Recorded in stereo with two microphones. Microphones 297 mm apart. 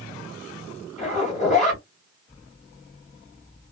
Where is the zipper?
25° left (ahead or behind), 1.7 m.